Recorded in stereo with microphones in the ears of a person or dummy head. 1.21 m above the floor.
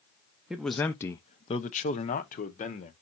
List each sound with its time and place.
0.5 s a man speaking: centre (ahead or behind), 0.6 m; by 2.9 s 35° left (ahead or behind), 1.1 m